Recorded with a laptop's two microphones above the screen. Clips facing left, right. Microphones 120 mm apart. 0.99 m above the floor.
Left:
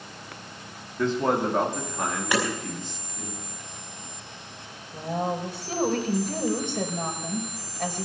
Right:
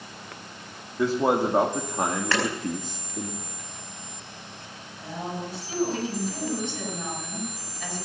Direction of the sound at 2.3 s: 15° left (ahead or behind).